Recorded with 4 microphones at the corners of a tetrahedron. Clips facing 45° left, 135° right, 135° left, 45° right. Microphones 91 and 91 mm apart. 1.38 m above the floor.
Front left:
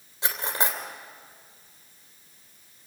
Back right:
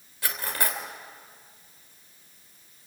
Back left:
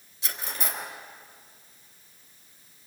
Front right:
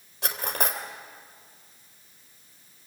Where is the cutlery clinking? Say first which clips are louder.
Front left 2 dB, front right 5 dB; 20° right, 3 m.